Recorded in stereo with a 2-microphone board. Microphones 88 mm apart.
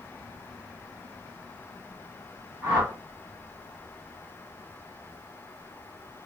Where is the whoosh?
20° right (ahead or behind), 1.6 m.